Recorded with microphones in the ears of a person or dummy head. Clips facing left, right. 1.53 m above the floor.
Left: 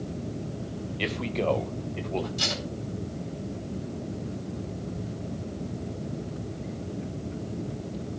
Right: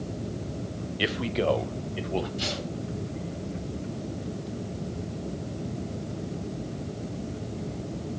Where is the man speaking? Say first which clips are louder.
Right 2 dB; 10° right (ahead or behind), 0.6 m; by 2.3 s 5° right (ahead or behind), 1.6 m.